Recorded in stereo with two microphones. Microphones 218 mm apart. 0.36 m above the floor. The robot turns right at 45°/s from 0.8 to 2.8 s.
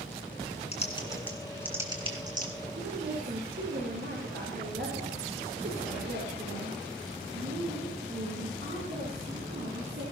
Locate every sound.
0.7 s typing on a keyboard: 30° left (ahead or behind), 2.5 m; by 2.5 s 45° right (ahead or behind), 2.5 m
2.7 s a woman speaking: 65° right (ahead or behind), 6 m; by 10.0 s 60° right (ahead or behind), 6 m